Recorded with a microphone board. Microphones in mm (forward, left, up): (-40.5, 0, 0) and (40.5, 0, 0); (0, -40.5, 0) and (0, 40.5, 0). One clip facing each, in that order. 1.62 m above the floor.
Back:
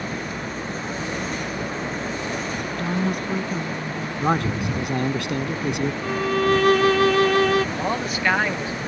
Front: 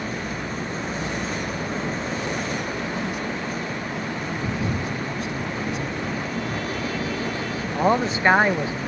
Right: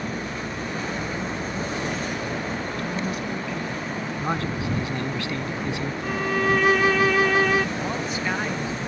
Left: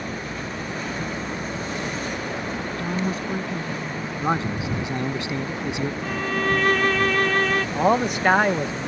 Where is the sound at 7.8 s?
65° left.